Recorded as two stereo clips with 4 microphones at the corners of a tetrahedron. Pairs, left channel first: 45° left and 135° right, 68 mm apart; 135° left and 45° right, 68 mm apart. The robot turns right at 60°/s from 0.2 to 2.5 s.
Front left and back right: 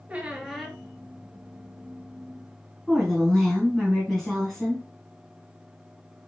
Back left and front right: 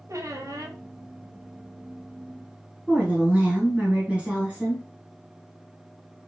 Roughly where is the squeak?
Ahead right.